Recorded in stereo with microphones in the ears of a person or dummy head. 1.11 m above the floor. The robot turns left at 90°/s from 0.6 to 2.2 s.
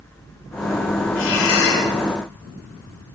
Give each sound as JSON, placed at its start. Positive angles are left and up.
{"t": 1.1, "sound": "breathing", "azimuth_deg": 110, "distance_m": 9.5}